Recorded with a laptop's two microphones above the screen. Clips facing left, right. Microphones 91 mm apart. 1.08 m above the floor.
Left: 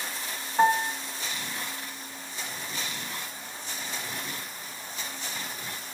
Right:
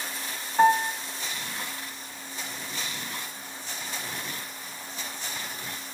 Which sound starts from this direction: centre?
A piano, at 0.6 s.